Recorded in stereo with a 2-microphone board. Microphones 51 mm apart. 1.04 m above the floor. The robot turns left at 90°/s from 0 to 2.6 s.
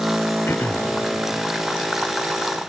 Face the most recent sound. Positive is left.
turn(degrees=-85)